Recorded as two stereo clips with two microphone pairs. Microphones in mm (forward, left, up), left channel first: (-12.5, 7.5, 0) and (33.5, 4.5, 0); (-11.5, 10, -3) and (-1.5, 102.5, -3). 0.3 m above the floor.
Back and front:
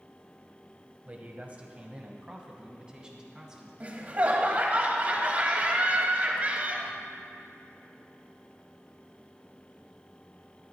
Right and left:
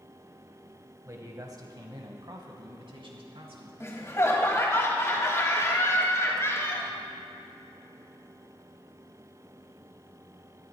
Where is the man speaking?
45° left, 1.6 m; by 3.7 s 70° left, 3 m.